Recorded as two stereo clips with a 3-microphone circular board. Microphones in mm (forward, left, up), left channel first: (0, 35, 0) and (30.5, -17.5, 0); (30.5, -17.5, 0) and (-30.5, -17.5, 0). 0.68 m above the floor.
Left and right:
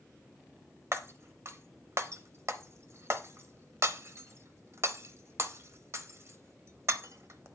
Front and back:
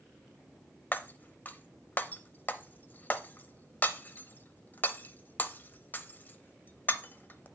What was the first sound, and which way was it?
Breaking glass, 50° right.